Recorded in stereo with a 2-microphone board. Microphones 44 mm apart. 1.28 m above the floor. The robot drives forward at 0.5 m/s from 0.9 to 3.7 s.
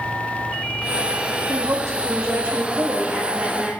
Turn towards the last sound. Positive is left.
turn(degrees=-45)  # may be behind; listen again after turning